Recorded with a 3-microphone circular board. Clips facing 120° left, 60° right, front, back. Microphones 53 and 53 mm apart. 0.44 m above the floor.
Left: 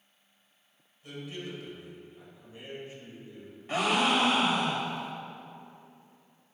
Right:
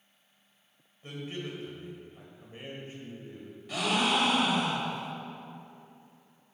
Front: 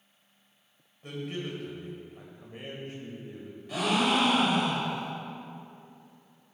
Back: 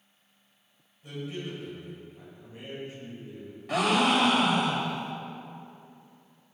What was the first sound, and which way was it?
A man speaking, 15° right.